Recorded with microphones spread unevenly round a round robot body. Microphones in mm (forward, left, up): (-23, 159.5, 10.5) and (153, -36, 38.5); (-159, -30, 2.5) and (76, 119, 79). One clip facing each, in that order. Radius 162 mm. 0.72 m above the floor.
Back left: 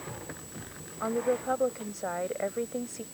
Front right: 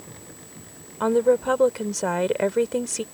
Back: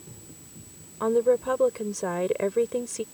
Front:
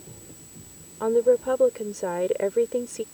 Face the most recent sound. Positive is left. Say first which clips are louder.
# front right 10 dB, front 2 dB
turn(degrees=-70)